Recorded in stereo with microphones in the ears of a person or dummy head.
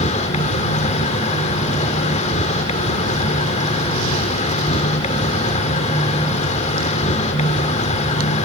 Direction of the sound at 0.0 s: 40° left (ahead or behind).